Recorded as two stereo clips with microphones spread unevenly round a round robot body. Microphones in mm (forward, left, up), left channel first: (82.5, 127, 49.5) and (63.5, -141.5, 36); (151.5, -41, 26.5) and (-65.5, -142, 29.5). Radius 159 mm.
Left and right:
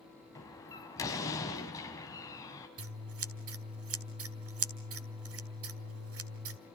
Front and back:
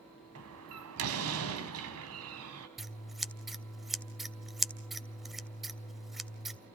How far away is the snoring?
No snoring in this recording.